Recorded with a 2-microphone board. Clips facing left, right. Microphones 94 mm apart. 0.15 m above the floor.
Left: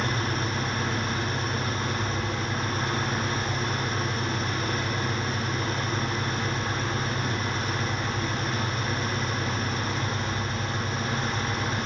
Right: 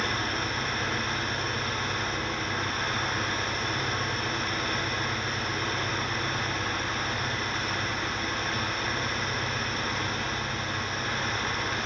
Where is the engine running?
35° left (ahead or behind), 1.8 m.